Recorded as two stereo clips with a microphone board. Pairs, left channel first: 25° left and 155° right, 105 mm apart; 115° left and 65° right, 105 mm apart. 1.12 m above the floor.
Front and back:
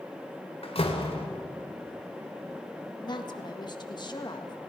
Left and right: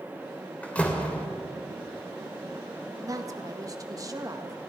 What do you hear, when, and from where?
0.6 s a door slam: 35° left, 2.5 m
3.0 s a woman speaking: 15° right, 1.9 m